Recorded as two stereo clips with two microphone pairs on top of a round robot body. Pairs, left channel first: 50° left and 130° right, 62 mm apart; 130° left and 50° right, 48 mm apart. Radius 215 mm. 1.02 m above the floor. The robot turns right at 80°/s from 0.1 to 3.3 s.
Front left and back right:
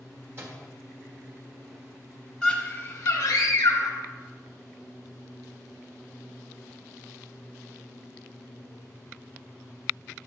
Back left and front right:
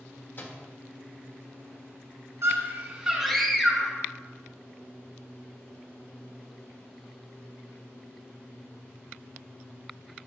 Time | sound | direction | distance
0.4 | a microwave | 175° left | 1.1 m
2.4 | a scream | 30° right | 1.4 m